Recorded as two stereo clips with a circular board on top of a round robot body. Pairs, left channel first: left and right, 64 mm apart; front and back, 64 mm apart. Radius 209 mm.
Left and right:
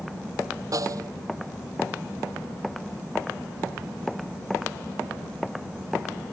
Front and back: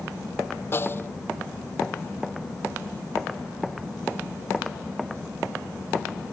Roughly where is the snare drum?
Ahead right.